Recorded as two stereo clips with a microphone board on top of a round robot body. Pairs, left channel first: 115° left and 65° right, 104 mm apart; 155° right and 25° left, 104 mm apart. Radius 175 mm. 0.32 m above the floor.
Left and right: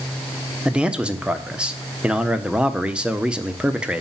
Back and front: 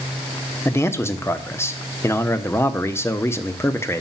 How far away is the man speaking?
About 1.5 m.